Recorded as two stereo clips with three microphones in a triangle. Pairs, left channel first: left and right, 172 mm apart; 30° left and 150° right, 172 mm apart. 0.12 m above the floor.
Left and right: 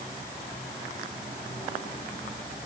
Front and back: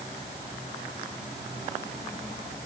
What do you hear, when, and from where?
Only background noise.